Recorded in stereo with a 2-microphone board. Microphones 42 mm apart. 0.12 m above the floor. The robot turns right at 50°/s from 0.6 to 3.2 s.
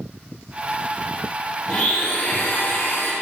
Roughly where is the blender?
Ahead left.